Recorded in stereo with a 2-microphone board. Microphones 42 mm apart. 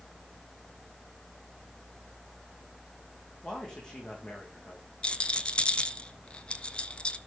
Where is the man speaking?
20° left (ahead or behind), 6.5 m.